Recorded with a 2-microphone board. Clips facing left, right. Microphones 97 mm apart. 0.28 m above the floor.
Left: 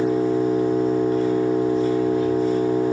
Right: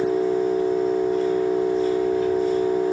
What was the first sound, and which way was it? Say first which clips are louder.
An engine running: left 1 dB; 85° left.